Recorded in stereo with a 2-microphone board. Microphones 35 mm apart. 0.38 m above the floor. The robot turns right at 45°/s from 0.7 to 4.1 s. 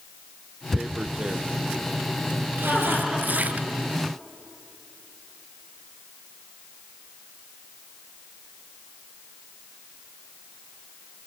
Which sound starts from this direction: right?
Laughter, at 2.6 s.